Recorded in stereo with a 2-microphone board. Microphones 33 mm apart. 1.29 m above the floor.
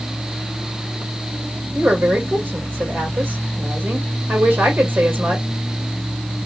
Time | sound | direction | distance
1.8 | a woman speaking | 85° right | 2.5 m